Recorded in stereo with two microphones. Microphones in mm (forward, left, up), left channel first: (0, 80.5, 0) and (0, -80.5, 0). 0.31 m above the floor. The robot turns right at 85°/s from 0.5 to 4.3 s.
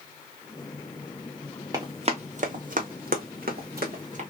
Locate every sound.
1.7 s running footsteps: 25° right (ahead or behind), 1.0 m; by 4.2 s 45° right (ahead or behind), 1.2 m